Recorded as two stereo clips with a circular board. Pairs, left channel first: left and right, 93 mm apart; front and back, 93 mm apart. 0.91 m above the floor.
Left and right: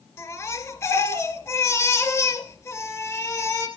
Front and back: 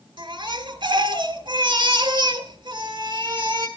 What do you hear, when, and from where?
0.2 s a baby crying: 145° left, 3 m